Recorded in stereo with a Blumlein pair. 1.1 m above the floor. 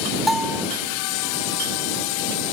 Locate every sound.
0.3 s a bell: straight ahead